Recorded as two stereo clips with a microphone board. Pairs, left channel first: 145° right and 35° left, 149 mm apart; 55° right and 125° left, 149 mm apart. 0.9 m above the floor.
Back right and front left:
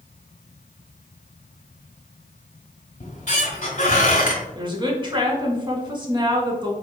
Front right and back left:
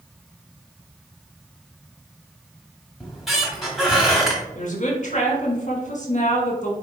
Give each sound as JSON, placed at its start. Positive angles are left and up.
{"t": 3.0, "sound": "a squeak", "azimuth_deg": -145, "distance_m": 1.2}
{"t": 4.5, "sound": "a woman speaking", "azimuth_deg": -25, "distance_m": 1.2}